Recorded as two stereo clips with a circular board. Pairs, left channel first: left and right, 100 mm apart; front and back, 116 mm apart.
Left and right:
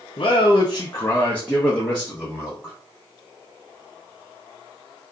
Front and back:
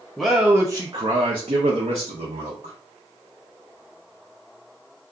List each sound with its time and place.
0.2 s a man speaking: 80° left, 0.5 m; by 2.8 s 175° right, 1.3 m